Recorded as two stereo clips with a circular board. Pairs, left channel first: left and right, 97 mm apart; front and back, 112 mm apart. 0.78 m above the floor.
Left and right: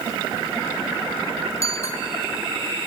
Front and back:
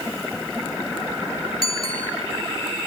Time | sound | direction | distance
1.6 | a bicycle bell | 30° left | 5 m